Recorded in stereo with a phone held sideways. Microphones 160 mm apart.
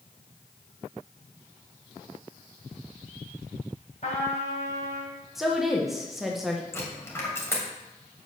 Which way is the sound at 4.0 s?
45° left (ahead or behind).